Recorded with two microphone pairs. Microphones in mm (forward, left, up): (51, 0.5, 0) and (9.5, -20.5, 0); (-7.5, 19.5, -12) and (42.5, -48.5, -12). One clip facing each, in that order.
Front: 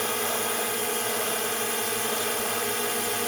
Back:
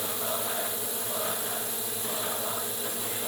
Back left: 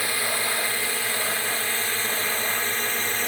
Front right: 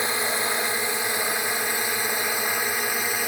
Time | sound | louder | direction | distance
0.0 | a drone | front 5 dB, front right 2 dB | 15° left | ?